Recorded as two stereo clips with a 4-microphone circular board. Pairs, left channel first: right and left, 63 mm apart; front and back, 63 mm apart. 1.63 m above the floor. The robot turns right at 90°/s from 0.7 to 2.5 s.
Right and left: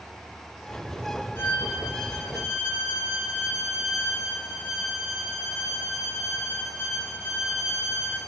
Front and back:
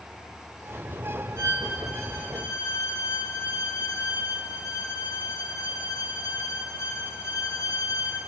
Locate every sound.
1.4 s a violin: 140° right, 5 m; by 8.2 s 35° right, 5 m